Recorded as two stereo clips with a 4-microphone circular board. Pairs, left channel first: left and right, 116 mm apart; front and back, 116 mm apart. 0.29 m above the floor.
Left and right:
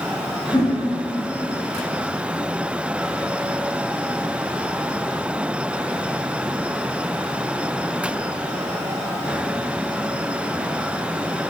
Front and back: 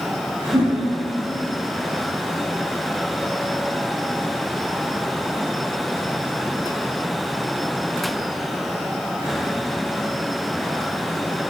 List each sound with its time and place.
0.5 s a whoosh: 140° left, 1.3 m